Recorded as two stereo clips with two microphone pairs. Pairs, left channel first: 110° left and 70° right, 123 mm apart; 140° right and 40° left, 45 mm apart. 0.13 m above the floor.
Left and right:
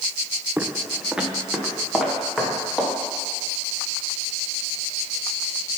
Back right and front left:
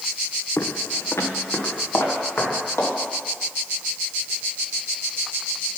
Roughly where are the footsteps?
Behind right.